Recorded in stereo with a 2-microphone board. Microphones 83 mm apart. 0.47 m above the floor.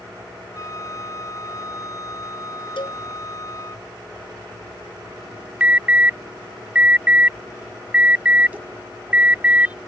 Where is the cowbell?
75° left (ahead or behind).